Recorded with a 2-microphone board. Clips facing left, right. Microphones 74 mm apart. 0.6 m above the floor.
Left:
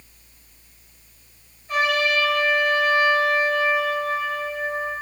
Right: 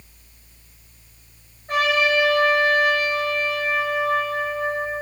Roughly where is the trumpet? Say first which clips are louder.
Right 2 dB; right.